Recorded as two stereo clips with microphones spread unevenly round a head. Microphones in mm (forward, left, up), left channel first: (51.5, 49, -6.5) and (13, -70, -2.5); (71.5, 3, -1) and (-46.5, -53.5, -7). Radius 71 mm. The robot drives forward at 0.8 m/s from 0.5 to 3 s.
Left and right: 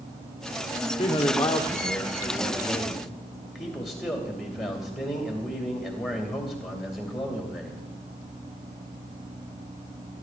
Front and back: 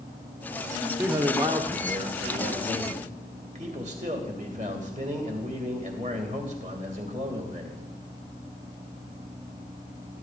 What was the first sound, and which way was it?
A man speaking, 125° left.